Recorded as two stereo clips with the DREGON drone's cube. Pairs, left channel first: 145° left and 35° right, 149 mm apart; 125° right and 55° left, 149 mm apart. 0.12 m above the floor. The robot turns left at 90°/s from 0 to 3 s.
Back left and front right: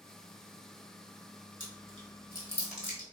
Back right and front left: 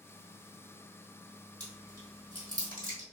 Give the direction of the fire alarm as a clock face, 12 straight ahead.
No fire alarm in this recording.